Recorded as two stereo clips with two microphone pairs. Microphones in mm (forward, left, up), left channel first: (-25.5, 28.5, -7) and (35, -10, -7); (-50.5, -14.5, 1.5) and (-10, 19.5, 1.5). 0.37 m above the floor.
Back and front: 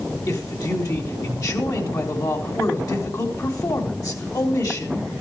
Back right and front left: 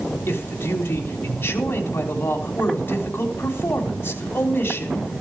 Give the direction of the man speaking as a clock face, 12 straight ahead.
6 o'clock.